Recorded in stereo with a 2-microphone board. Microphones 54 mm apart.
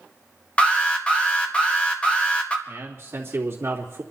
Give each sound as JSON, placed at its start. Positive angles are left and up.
{"t": 0.6, "sound": "an alarm", "side_deg": 25, "distance_m": 2.0}
{"t": 2.7, "sound": "a man speaking", "side_deg": -50, "distance_m": 3.0}